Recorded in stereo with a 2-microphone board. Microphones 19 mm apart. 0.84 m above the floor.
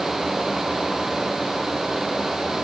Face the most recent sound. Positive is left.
No sound to turn to.